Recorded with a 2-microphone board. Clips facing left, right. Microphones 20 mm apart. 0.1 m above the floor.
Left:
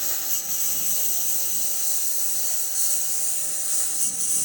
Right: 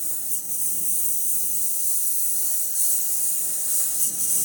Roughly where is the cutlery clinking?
I don't hear cutlery clinking.